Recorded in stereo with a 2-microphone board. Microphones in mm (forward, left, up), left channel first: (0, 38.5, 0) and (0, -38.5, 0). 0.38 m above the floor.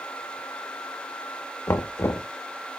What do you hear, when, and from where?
1.7 s knocking: 35° left (ahead or behind), 0.5 m